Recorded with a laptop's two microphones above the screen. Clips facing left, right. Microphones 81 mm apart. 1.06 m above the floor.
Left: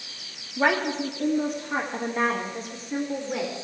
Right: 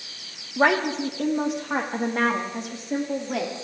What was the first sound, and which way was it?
A woman speaking, 60° right (ahead or behind).